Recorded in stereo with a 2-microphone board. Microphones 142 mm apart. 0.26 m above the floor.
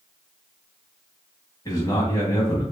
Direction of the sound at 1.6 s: 25° left (ahead or behind).